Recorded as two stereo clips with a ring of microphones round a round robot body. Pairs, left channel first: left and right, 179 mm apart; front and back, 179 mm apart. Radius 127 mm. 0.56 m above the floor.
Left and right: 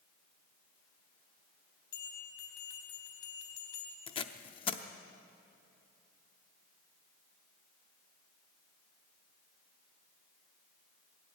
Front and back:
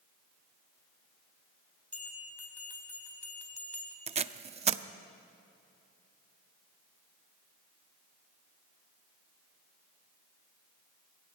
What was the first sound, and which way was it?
A bell, 80° left.